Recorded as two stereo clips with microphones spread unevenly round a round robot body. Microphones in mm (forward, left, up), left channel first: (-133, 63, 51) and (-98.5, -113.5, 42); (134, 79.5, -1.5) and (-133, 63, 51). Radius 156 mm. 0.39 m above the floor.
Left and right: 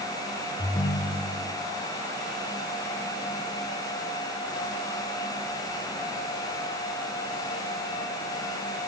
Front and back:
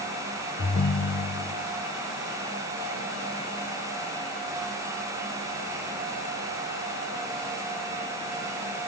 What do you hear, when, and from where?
0.6 s a ringtone: 35° left, 0.5 m